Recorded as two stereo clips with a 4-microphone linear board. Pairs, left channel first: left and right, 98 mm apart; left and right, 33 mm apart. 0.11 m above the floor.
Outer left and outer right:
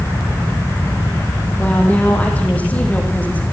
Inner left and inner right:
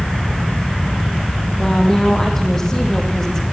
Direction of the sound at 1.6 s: 15° left (ahead or behind).